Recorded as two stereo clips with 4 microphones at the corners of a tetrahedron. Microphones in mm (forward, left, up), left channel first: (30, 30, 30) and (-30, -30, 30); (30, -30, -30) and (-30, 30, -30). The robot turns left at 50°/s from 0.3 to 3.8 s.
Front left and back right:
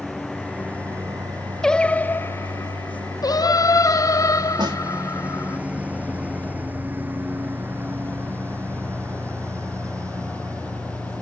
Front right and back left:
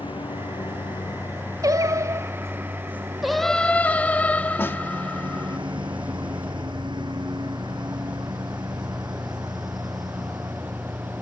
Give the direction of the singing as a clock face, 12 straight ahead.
8 o'clock.